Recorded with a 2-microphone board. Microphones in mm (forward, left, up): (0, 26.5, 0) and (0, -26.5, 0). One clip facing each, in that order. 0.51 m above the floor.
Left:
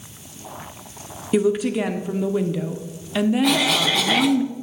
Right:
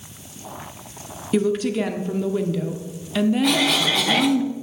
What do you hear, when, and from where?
1.3 s a woman speaking: 10° left (ahead or behind), 0.7 m
3.4 s a cough: centre (ahead or behind), 0.9 m